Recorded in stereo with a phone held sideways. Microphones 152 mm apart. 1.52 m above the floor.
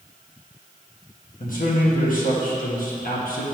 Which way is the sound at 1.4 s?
75° left (ahead or behind).